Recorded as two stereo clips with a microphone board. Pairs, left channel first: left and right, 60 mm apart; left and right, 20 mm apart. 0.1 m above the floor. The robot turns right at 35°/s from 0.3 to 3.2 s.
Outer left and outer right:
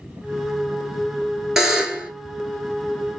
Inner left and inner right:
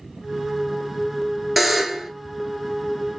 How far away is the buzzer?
About 0.6 m.